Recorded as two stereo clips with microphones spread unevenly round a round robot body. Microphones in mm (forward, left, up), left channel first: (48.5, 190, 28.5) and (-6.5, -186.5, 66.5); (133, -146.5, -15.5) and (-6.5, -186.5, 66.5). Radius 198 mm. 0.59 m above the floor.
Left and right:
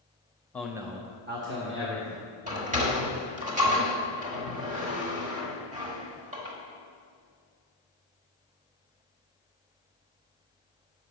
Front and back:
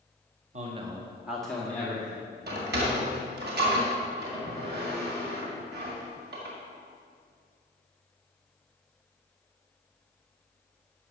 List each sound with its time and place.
0.5 s a man speaking: 145° left, 1.0 m; by 3.3 s 40° right, 4 m
2.5 s a sliding door: 170° right, 1.6 m